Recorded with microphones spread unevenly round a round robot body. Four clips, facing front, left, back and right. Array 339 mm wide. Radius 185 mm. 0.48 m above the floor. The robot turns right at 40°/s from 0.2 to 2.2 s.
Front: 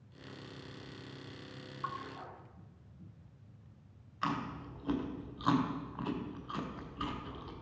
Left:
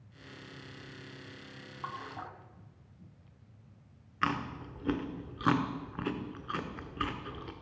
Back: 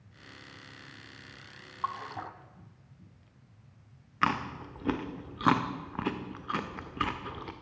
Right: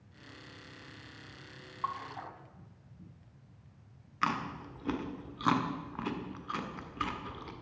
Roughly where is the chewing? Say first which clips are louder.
Even, back 6 dB; behind left.